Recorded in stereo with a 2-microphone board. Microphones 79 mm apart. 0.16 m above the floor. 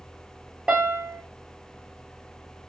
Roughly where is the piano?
Centre.